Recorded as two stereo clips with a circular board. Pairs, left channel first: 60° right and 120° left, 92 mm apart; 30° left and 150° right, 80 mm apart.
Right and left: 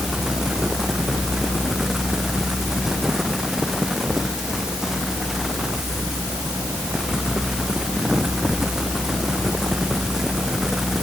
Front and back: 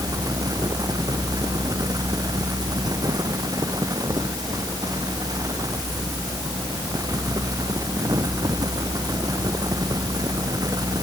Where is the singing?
No singing in this recording.